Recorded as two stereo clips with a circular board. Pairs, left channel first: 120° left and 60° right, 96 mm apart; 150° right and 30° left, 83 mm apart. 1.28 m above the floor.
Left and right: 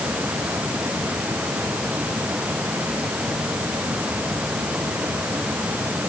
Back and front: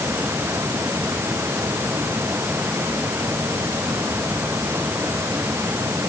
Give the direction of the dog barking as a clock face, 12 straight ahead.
I don't hear a dog barking.